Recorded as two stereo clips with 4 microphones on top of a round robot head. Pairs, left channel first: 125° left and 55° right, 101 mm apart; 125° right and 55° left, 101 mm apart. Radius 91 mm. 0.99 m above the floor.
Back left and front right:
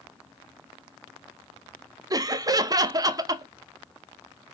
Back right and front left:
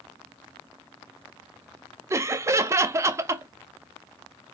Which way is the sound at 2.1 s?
5° right.